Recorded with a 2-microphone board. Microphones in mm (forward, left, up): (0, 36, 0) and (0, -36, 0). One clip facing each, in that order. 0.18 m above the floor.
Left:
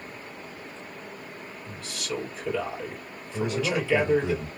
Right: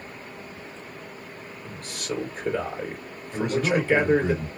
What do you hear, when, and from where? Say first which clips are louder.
1.6 s a man speaking: right 2 dB; 50° right (ahead or behind), 2.5 m
3.3 s a man speaking: right 3 dB; 55° right (ahead or behind), 2.5 m